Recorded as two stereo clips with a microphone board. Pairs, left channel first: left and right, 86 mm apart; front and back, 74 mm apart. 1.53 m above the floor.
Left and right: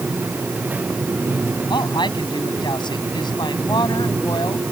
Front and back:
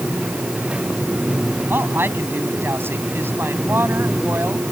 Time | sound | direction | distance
1.7 | a woman speaking | 120° left | ?